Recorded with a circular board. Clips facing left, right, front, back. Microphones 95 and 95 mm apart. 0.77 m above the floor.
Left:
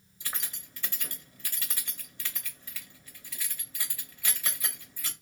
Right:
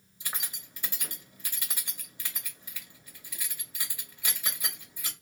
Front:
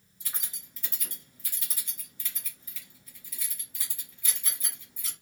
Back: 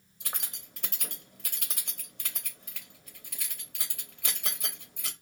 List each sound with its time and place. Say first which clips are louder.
0.2 s keys jangling: even, back 4 dB; 165° right, 0.8 m